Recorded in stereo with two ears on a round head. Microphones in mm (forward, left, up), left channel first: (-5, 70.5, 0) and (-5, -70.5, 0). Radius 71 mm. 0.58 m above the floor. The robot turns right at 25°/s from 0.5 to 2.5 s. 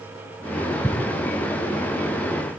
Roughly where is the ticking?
Centre.